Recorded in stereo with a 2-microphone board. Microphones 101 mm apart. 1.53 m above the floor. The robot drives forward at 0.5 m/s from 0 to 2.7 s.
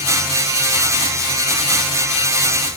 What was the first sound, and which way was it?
Only background noise.